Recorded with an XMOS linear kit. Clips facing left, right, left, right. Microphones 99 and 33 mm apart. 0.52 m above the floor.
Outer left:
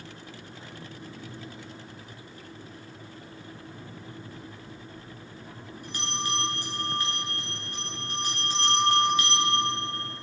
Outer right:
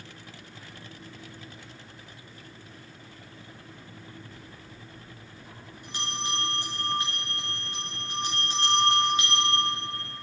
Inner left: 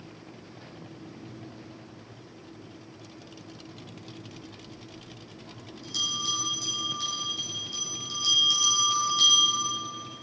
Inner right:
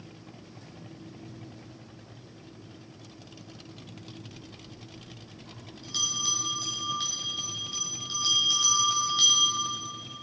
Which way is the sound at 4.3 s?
20° right (ahead or behind).